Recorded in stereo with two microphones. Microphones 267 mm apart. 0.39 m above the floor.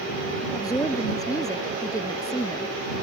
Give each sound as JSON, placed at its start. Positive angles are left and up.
{"t": 0.5, "sound": "a woman speaking", "side_deg": 15}